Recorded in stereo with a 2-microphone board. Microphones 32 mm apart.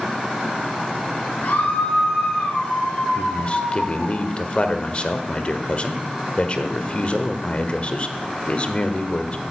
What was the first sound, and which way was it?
A scream, 80° left.